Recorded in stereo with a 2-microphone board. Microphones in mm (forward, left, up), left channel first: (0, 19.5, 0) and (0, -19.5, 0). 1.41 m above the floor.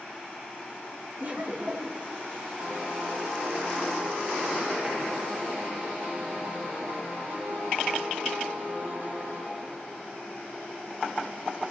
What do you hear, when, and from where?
1.2 s laughter: 40° right (ahead or behind), 2.5 m
2.6 s a piano: 55° right (ahead or behind), 9 m